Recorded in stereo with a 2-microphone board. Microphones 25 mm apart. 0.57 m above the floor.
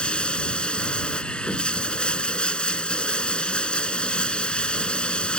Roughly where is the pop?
I don't hear a pop.